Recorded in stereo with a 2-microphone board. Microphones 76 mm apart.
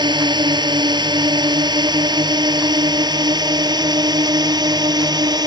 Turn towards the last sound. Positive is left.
turn(degrees=-65)  # may be behind; listen again after turning